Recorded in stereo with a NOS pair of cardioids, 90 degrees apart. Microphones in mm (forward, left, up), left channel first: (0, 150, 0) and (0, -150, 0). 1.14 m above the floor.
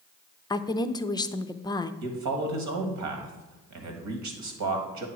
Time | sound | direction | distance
0.5 | a woman speaking | 15° left | 0.5 m
2.0 | a man speaking | 70° right | 1.8 m